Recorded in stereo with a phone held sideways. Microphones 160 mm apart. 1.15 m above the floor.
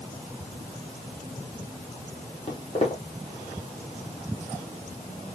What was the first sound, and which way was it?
Footsteps, 40° left (ahead or behind).